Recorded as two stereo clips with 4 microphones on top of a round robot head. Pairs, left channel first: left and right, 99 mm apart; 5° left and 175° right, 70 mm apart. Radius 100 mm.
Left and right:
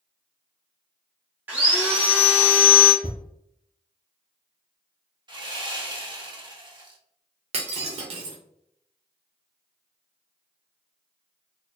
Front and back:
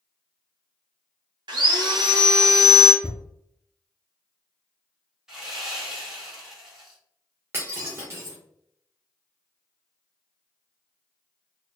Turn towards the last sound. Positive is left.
turn(degrees=-110)